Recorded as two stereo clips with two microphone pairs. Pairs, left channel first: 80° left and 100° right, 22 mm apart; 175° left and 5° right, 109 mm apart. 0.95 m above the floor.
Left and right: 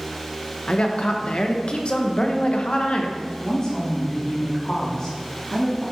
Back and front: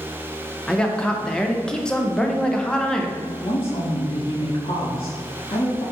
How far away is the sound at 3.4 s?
About 1.7 m.